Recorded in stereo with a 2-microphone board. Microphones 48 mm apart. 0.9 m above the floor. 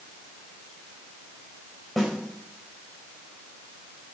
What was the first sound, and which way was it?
A snare drum, 5° left (ahead or behind).